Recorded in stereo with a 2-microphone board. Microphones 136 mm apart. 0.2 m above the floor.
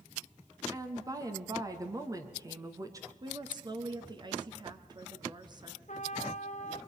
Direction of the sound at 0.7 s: 25° right (ahead or behind).